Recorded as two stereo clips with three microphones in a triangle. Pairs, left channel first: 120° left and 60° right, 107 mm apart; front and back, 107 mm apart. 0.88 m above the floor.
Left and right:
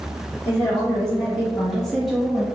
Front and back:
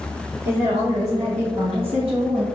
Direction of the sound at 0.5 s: 155° right.